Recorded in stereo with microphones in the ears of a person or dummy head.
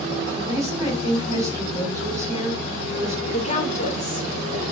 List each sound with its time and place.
0.3 s a woman speaking: 20° right (ahead or behind), 5 m
3.3 s a woman speaking: 35° left (ahead or behind), 1.7 m